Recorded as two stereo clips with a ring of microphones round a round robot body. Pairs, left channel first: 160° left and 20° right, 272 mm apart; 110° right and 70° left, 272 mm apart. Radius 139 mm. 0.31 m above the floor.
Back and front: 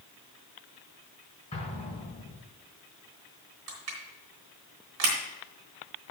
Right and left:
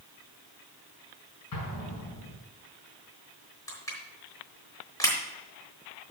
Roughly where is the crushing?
Ahead right.